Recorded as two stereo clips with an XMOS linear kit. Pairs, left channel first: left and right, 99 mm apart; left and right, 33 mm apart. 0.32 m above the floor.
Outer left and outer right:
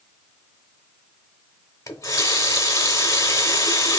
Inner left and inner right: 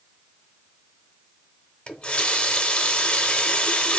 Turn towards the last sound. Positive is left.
turn(degrees=35)  # may be behind; listen again after turning